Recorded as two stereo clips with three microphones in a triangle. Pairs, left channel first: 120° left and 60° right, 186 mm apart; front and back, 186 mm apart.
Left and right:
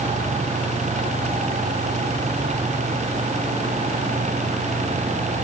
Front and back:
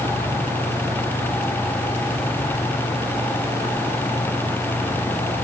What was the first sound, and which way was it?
Only background noise.